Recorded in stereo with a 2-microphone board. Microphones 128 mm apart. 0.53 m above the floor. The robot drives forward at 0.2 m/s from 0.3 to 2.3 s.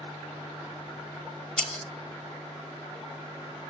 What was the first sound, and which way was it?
Breaking glass, 10° left (ahead or behind).